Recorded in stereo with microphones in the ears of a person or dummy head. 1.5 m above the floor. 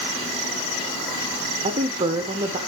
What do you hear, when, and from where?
1.6 s a woman speaking: 35° right (ahead or behind), 0.9 m